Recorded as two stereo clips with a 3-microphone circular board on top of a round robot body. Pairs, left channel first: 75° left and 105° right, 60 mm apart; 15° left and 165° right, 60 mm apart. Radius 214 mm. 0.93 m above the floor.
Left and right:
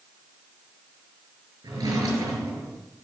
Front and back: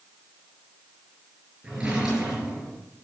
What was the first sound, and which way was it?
A drawer, 90° right.